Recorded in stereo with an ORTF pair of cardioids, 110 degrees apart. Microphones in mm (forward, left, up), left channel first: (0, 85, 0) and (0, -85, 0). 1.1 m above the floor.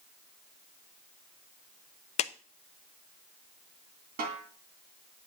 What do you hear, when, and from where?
2.2 s a clap: 40° left, 0.5 m
4.2 s a snare drum: 65° right, 2.5 m